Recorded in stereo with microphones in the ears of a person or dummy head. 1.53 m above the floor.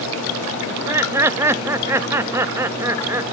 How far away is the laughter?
About 0.7 m.